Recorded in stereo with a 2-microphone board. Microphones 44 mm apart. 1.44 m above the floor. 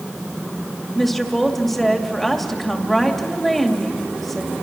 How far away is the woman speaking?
About 2.5 m.